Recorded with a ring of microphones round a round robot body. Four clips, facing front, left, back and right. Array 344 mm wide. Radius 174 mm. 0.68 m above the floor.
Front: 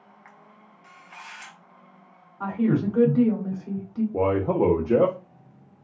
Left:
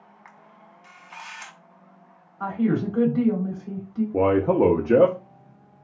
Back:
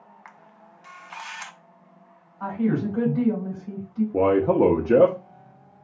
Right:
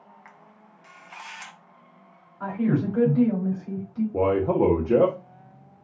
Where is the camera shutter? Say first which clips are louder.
Left 1 dB, back 2 dB; 175° right, 0.6 m.